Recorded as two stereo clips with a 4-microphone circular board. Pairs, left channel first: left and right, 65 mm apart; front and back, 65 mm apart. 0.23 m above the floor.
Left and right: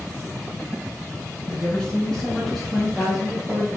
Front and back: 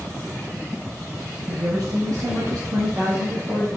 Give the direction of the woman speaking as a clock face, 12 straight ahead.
7 o'clock.